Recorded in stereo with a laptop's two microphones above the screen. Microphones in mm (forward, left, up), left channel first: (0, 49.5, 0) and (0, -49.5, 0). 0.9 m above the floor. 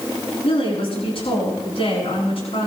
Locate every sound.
0.4 s a woman speaking: 75° left (ahead or behind), 9.5 m